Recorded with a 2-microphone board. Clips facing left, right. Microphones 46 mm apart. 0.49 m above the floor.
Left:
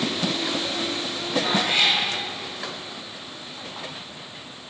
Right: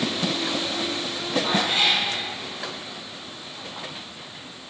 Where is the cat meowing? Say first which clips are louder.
Left 1 dB; 65° left (ahead or behind), 3.5 m.